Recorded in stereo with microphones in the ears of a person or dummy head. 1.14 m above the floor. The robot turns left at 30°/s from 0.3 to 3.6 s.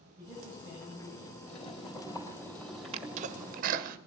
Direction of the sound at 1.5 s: 35° left.